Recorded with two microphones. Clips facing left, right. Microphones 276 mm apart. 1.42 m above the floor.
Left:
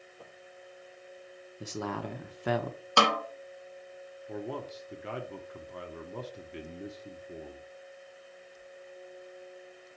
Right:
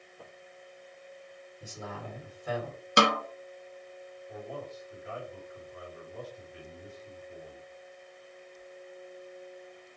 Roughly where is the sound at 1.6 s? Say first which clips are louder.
Left 7 dB; left.